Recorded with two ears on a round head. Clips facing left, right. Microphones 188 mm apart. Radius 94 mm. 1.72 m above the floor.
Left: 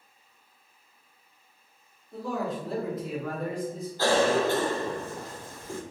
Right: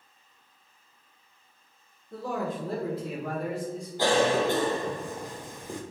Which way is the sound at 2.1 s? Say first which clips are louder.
Even; 55° right (ahead or behind).